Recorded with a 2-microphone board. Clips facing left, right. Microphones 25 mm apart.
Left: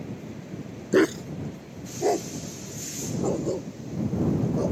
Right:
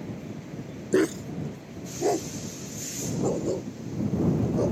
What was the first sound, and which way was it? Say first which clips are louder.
A dog barking: left 3 dB; 25° left (ahead or behind).